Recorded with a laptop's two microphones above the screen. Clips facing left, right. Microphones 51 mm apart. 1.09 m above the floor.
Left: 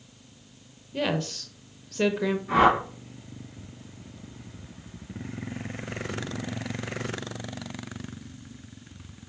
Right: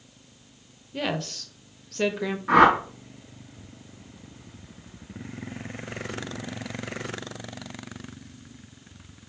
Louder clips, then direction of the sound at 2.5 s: Right 4 dB; 70° right (ahead or behind).